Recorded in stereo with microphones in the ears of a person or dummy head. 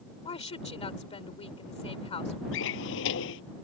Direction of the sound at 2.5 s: 70° left (ahead or behind).